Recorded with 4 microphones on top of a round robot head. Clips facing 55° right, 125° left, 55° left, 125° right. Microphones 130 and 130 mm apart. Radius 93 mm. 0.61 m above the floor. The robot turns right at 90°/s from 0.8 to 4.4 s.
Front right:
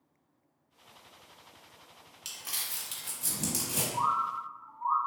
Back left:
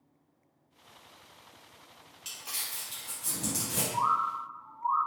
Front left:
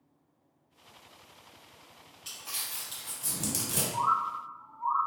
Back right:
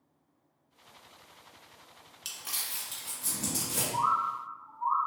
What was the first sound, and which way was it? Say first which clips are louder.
Crumpling: even, back right 1 dB; 110° right.